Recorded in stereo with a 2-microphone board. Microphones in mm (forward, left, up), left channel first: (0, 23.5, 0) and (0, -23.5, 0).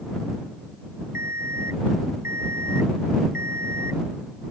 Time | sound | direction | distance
1.1 | an alarm clock | 70° right (ahead or behind) | ?